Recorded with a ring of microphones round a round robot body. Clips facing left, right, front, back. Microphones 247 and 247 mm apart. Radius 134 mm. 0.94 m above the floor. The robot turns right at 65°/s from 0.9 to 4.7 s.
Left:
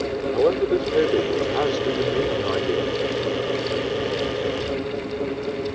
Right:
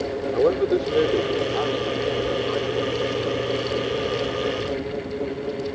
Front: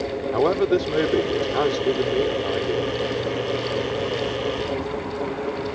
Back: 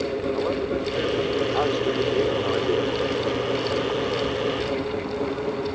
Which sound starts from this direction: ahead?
A man speaking, at 0.3 s.